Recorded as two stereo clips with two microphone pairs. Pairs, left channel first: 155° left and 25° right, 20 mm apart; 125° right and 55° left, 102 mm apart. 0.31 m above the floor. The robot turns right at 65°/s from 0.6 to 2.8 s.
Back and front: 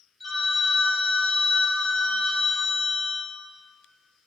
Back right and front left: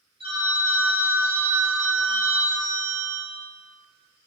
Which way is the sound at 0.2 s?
65° left.